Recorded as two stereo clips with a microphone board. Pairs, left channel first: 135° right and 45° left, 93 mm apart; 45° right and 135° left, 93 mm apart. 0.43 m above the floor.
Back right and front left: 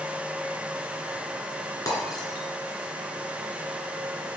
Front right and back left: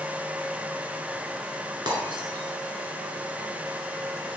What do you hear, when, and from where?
1.9 s breaking glass: 175° left, 2 m